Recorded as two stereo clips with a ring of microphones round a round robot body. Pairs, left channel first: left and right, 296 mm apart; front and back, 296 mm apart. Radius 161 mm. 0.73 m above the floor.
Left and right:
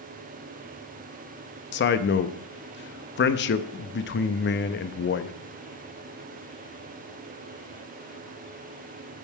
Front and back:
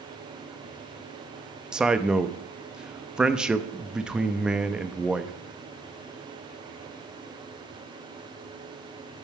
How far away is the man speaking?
About 0.5 m.